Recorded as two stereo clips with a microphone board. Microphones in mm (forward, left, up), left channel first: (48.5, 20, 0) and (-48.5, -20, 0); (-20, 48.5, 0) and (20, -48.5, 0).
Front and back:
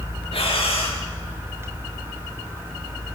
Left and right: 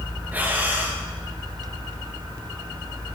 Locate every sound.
0.3 s breathing: 5° left, 2.0 m